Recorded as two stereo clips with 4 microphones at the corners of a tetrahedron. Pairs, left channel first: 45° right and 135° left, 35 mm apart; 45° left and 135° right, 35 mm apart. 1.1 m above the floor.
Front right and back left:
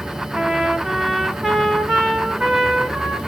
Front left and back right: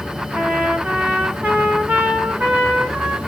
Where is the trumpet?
160° right, 1.2 m.